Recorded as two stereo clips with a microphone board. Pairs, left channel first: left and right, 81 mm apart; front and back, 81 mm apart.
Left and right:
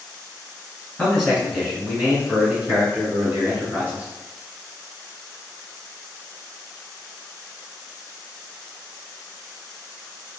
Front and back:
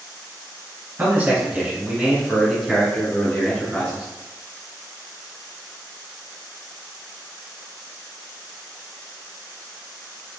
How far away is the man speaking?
About 1.8 m.